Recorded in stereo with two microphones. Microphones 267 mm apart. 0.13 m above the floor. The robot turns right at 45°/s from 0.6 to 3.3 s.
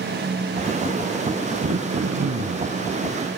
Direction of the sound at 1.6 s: 125° right.